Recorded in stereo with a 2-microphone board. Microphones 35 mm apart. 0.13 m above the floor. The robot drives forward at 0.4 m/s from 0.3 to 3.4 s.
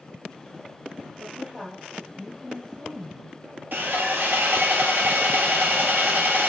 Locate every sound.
1.2 s a woman speaking: 20° right (ahead or behind), 3 m; by 3.4 s 15° right (ahead or behind), 3.5 m
3.7 s sawing: 60° right (ahead or behind), 1.3 m